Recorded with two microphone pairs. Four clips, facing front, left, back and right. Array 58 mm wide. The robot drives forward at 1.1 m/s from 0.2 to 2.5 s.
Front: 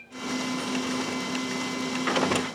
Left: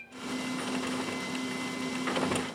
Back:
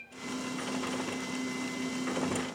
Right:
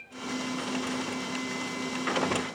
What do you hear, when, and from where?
Only background noise.